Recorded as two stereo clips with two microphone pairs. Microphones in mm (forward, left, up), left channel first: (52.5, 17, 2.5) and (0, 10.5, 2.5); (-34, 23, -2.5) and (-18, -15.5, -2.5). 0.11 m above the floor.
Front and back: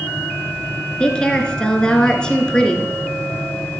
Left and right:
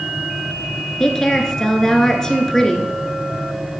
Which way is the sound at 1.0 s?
55° left.